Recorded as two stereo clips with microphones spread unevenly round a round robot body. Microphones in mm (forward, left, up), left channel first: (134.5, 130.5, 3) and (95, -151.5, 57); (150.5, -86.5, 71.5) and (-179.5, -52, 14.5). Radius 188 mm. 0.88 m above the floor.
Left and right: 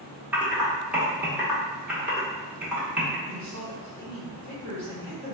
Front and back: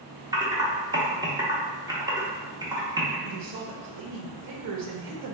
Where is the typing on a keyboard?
155° left, 0.9 m.